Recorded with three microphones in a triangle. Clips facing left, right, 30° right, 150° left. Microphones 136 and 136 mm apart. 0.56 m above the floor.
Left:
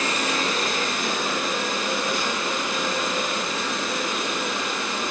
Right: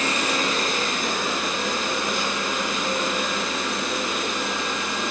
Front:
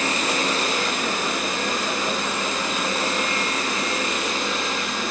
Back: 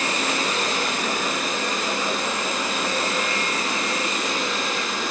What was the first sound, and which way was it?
Only background noise.